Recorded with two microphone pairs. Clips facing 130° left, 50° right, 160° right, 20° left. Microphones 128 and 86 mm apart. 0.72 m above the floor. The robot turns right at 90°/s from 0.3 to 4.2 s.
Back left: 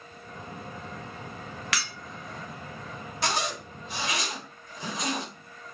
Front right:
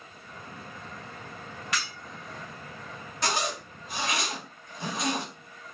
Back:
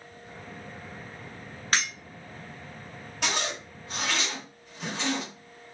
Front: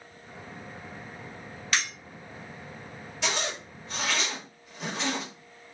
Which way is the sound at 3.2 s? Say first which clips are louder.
Even, back 1 dB; 145° right.